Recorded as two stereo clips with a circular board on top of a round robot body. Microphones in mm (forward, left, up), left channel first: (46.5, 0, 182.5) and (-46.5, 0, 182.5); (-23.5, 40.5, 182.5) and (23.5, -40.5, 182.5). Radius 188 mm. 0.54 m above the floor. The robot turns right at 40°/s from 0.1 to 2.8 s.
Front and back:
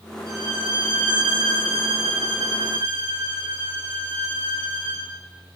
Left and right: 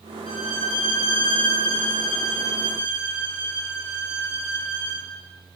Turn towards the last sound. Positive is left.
turn(degrees=-120)